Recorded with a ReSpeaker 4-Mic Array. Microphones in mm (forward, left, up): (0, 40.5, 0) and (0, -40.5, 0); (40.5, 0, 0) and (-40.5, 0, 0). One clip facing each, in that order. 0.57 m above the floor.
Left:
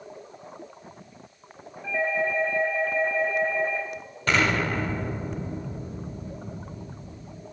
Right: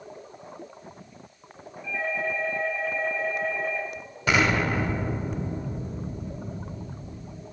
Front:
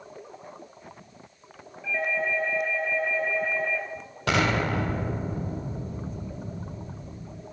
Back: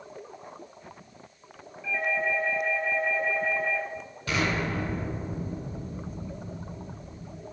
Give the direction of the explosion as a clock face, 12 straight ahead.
12 o'clock.